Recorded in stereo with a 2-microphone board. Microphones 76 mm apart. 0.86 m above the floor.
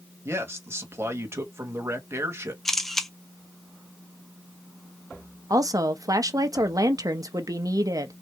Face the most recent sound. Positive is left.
turn(degrees=-50)  # may be behind; listen again after turning